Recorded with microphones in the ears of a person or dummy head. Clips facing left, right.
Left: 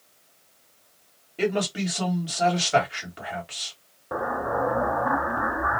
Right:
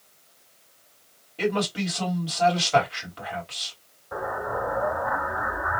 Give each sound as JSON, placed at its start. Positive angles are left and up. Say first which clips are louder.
{"t": 1.4, "sound": "a man speaking", "louder": "left 1 dB", "side_deg": 20, "distance_m": 1.8}
{"t": 4.1, "sound": "an explosion", "louder": "left 3 dB", "side_deg": 55, "distance_m": 0.7}